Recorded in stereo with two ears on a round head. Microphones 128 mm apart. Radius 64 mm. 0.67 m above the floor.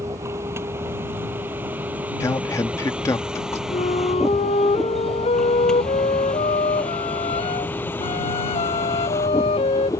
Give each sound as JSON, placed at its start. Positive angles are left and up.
{"t": 0.0, "sound": "a vehicle", "side_deg": -20}
{"t": 2.2, "sound": "a man speaking", "side_deg": 20}
{"t": 3.7, "sound": "a flute", "side_deg": 45}